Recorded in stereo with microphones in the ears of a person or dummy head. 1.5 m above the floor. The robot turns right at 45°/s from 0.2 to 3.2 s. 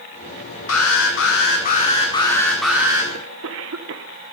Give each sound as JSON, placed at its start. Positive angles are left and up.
{"t": 0.7, "sound": "an alarm", "azimuth_deg": 90, "distance_m": 4.5}
{"t": 3.1, "sound": "a cough", "side_deg": -75, "distance_m": 1.6}